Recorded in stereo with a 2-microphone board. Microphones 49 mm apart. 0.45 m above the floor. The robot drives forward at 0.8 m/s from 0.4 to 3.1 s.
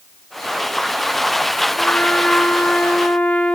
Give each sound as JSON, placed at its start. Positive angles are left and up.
{"t": 1.8, "sound": "a trumpet", "side_deg": 30, "distance_m": 4.5}